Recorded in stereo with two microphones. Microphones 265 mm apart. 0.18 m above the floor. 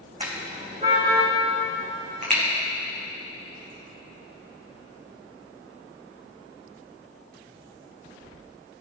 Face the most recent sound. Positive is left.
turn(degrees=-30)  # may be behind; listen again after turning